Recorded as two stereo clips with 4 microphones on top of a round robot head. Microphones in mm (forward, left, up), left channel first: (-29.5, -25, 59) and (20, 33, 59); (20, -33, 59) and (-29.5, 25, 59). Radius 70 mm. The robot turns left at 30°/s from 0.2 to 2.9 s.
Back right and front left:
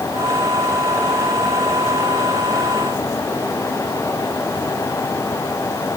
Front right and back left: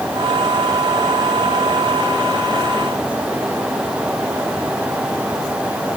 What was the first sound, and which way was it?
Only background noise.